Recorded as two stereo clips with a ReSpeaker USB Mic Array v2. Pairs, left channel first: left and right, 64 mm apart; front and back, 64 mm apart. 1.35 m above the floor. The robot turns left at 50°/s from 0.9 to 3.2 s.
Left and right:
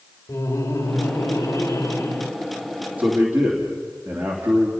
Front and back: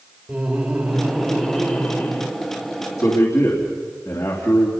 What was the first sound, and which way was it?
Laughter, 100° left.